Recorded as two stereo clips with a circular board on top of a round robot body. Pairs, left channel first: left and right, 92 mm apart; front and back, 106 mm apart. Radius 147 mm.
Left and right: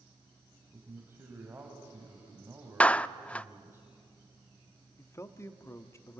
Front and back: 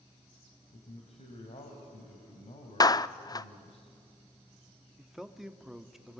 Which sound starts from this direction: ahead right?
A man speaking, at 0.7 s.